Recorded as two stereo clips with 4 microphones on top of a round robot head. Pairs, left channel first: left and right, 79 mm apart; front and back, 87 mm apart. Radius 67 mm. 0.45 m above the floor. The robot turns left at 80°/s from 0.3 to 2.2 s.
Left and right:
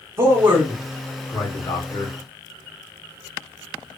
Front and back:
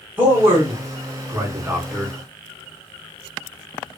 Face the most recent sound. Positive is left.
turn(degrees=80)